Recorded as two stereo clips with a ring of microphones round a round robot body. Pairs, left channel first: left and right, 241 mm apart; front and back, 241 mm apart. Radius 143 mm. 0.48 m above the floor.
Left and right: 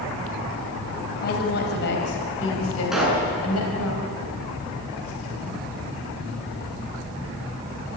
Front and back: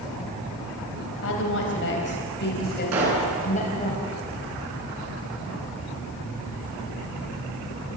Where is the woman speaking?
35° left, 3.5 m; by 3.9 s 65° left, 4 m.